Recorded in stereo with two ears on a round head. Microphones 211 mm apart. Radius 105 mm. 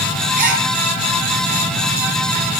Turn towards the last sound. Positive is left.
turn(degrees=-35)  # may be behind; listen again after turning